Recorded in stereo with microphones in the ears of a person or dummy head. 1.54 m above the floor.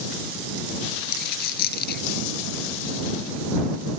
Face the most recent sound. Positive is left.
turn(degrees=60)  # may be behind; listen again after turning